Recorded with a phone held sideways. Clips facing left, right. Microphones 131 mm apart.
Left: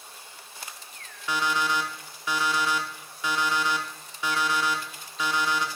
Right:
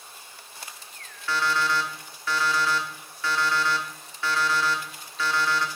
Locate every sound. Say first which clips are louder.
1.3 s an alarm clock: right 1 dB; 15° left (ahead or behind), 0.8 m